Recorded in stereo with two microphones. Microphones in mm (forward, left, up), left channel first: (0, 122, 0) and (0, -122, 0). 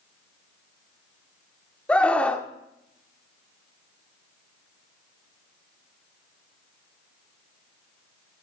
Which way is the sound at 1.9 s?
5° left (ahead or behind).